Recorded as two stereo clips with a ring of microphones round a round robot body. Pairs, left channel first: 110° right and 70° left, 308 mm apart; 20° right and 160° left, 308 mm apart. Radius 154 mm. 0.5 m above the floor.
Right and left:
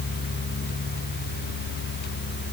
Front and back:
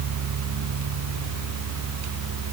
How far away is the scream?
No scream in this recording.